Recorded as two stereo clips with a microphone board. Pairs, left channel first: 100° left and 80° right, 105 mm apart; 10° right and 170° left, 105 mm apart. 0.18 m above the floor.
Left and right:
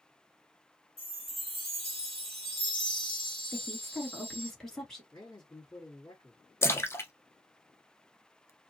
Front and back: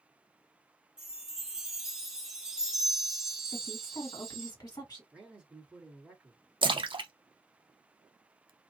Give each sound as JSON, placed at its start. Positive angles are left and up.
{"t": 1.0, "sound": "a chime", "azimuth_deg": 85, "distance_m": 1.4}
{"t": 3.5, "sound": "a woman speaking", "azimuth_deg": 15, "distance_m": 1.9}
{"t": 5.1, "sound": "a man speaking", "azimuth_deg": 100, "distance_m": 2.0}
{"t": 6.6, "sound": "a splash", "azimuth_deg": 155, "distance_m": 0.5}